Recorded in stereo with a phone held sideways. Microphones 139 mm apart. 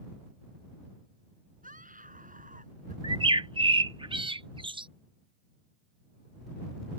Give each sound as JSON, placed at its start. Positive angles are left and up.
{"t": 1.6, "sound": "a scream", "side_deg": -75}
{"t": 3.0, "sound": "a bird", "side_deg": -40}